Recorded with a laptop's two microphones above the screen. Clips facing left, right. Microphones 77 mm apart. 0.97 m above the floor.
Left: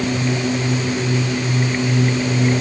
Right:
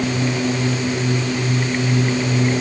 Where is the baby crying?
No baby crying in this recording.